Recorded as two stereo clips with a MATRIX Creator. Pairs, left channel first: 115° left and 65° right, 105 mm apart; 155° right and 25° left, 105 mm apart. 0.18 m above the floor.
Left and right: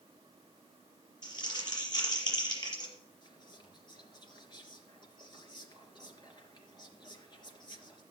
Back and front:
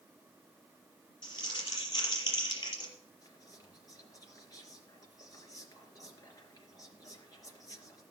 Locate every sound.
1.2 s crumpling: 155° left, 5.5 m
3.2 s whispering: 150° left, 2.5 m